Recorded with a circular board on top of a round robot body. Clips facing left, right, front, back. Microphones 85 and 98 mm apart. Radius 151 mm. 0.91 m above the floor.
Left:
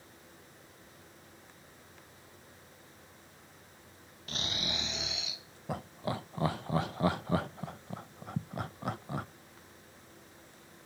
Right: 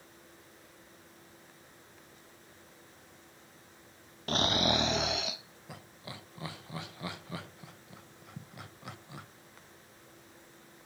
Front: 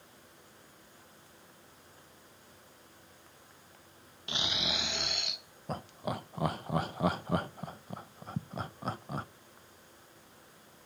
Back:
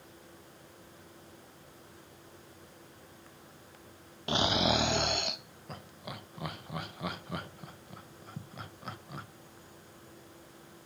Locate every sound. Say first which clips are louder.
4.3 s snoring: right 10 dB, back 9 dB; 130° right, 0.6 m
5.7 s laughter: left 12 dB, front 8 dB; 50° left, 0.7 m